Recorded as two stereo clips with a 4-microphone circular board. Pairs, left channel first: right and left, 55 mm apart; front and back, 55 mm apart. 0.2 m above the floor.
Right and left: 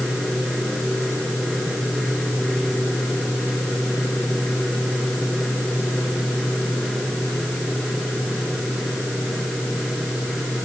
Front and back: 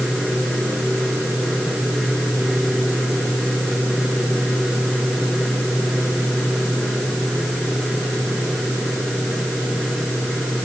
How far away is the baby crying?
I don't hear a baby crying.